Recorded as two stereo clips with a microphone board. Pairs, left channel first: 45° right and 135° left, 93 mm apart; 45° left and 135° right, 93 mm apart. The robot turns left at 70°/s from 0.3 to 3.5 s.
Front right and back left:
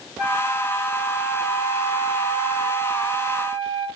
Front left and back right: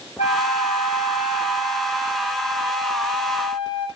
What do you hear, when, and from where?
0.2 s a flute: 50° left, 9 m; by 3.9 s 175° right, 9 m